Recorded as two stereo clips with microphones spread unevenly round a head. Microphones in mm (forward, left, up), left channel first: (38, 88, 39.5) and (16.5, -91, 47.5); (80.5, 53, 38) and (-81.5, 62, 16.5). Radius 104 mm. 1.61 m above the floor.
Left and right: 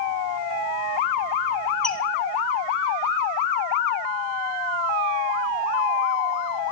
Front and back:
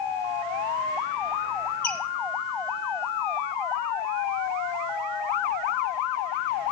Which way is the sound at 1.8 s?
5° right.